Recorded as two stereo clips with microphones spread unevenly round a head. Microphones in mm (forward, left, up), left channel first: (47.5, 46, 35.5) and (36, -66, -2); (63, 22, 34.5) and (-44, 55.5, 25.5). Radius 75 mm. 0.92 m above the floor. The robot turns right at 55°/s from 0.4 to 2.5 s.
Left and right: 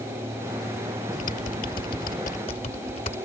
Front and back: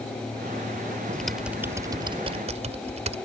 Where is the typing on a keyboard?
65° left; by 3.1 s 140° left.